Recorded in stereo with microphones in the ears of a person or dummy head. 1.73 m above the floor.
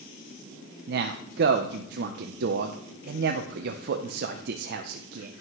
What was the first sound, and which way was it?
A man speaking, 55° right (ahead or behind).